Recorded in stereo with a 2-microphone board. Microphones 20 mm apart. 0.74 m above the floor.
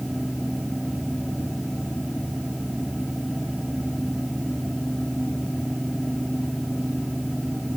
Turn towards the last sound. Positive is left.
No sound to turn to.